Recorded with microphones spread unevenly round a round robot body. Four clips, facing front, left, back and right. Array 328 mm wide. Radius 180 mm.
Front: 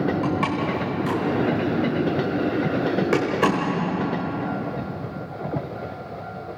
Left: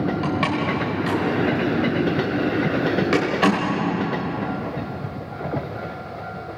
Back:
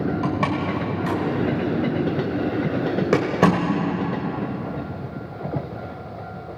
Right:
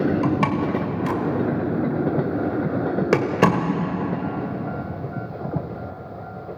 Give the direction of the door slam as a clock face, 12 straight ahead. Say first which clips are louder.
Right 1 dB, even; 5 o'clock.